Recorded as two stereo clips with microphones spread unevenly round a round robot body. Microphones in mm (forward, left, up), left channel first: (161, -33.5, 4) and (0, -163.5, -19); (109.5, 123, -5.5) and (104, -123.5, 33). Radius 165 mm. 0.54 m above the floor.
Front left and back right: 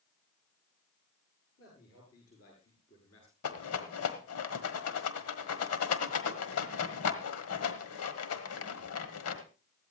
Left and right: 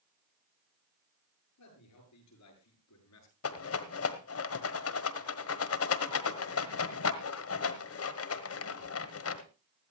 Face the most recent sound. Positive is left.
turn(degrees=65)